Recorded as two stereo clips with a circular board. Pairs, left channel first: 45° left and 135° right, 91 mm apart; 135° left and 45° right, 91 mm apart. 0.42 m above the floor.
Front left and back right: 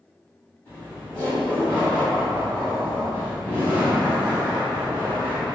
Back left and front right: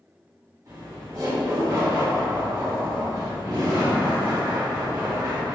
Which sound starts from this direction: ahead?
Laughter, at 0.7 s.